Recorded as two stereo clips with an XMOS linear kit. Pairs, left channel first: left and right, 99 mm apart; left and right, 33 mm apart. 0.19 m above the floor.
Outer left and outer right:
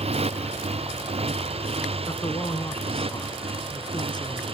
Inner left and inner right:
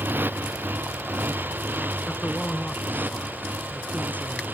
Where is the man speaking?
45° left (ahead or behind).